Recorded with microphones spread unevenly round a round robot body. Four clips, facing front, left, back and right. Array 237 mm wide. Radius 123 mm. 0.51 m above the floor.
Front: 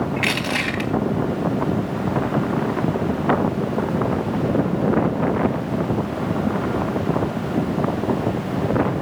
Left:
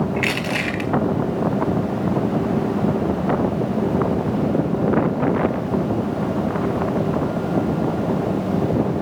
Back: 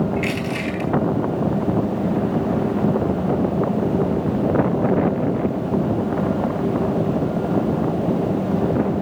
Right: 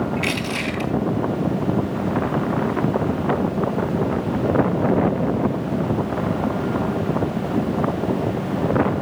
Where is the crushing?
35° left, 3.5 m.